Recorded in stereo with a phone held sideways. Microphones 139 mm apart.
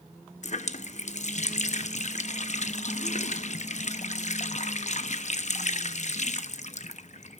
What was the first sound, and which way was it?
A running tap, 55° left (ahead or behind).